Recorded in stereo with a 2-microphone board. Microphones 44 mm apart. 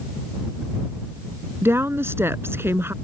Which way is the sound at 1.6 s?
70° right (ahead or behind).